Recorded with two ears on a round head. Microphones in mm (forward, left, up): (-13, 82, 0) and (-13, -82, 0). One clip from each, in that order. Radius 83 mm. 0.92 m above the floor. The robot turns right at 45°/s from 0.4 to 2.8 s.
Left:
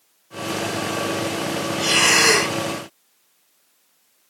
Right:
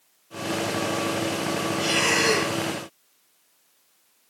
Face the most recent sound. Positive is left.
turn(degrees=60)